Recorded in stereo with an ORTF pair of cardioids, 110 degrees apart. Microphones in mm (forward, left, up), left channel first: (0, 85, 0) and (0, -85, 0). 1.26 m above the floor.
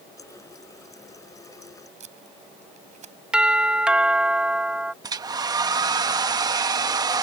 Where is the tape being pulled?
45° right.